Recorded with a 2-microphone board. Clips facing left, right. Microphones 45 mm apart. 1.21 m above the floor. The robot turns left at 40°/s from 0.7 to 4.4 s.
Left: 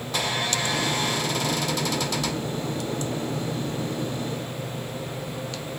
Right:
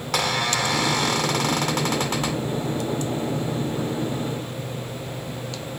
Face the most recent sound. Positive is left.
turn(degrees=130)